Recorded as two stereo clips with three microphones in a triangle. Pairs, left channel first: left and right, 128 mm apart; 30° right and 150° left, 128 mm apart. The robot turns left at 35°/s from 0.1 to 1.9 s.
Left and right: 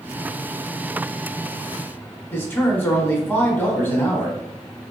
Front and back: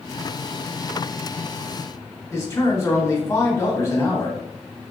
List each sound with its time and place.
2.3 s a man speaking: 25° left, 1.0 m